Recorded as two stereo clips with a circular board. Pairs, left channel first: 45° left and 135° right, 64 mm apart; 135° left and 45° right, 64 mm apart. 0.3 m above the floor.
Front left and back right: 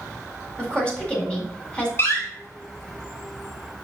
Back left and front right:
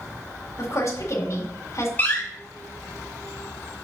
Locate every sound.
0.6 s a woman speaking: 115° left, 1.8 m
2.0 s a door slam: 80° left, 1.7 m